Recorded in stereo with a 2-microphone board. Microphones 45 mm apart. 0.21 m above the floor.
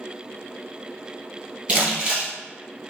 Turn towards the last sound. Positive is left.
turn(degrees=-35)  # may be behind; listen again after turning